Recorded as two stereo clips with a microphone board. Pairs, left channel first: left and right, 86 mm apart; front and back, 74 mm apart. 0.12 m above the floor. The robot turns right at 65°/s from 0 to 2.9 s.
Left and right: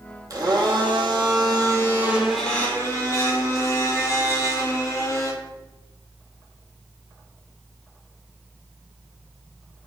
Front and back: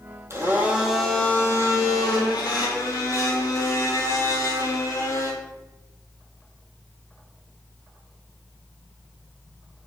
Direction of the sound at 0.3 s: 130° right.